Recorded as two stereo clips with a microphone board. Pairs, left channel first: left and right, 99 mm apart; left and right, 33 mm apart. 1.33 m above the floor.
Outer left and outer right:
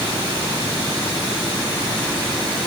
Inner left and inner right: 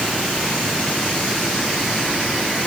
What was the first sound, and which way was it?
Only background noise.